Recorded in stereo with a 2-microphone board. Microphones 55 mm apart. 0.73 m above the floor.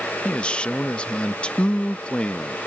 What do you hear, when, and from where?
0.2 s a man speaking: 20° left (ahead or behind)